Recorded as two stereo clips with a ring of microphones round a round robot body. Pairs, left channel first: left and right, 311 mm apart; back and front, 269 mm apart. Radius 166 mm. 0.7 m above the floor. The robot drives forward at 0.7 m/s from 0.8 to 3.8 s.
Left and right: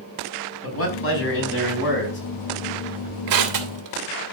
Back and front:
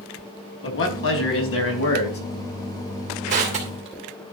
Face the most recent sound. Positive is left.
turn(degrees=-70)